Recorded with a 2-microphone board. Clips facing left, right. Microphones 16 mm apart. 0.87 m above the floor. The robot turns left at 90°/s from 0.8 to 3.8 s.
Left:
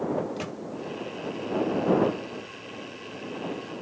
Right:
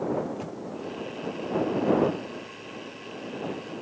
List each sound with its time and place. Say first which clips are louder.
0.2 s a microwave: left 1 dB; 55° left (ahead or behind)